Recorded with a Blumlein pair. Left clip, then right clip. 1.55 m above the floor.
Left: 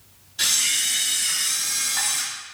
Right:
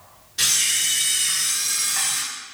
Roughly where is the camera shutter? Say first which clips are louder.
Right 1 dB; ahead right.